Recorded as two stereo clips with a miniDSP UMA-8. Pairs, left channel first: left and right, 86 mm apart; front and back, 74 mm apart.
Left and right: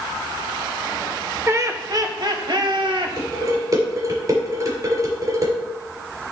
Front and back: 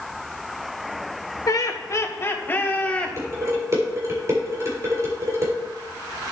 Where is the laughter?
35° right, 1.3 m; by 3.2 s 75° right, 1.7 m.